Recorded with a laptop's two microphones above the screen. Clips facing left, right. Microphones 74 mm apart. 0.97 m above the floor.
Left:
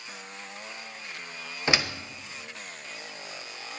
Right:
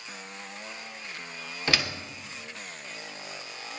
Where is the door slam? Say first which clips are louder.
Left 2 dB; 20° left (ahead or behind), 0.7 m.